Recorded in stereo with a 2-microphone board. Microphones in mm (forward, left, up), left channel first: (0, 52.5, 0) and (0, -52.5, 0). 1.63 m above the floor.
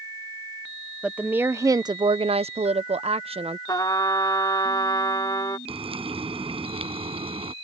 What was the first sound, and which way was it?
A woman speaking, 10° right (ahead or behind).